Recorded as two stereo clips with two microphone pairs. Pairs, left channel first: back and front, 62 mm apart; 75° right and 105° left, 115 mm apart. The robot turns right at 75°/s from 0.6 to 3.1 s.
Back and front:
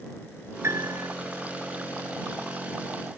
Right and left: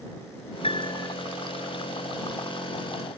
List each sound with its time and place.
0.6 s a piano: 45° right; by 1.2 s 5° right